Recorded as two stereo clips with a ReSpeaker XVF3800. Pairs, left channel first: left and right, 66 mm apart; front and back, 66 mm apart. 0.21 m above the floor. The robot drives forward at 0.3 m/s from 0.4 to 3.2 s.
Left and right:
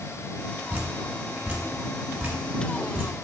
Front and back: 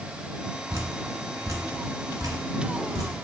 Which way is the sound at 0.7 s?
150° right.